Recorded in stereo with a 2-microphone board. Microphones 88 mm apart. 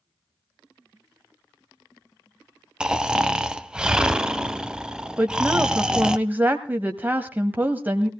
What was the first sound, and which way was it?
Snoring, 10° right (ahead or behind).